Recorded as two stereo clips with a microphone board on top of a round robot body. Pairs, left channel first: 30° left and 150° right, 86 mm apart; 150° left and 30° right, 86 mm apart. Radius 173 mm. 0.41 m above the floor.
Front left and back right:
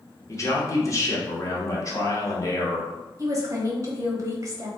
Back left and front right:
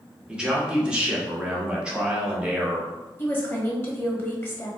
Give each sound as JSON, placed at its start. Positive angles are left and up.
{"t": 0.3, "sound": "a man speaking", "azimuth_deg": 40, "distance_m": 1.2}
{"t": 3.2, "sound": "a woman speaking", "azimuth_deg": -165, "distance_m": 1.4}